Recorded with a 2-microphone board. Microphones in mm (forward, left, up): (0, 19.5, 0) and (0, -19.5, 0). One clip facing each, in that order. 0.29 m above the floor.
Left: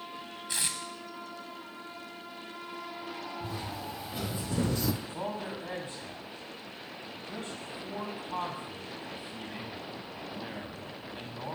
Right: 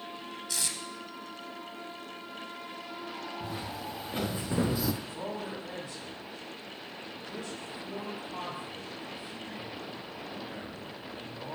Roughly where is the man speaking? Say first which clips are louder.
Left 1 dB; left.